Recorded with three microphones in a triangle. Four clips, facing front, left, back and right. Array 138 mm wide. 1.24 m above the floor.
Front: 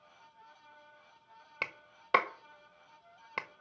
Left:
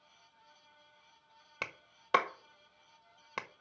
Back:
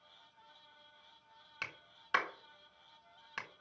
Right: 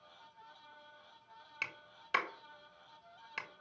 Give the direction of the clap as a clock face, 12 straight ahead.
11 o'clock.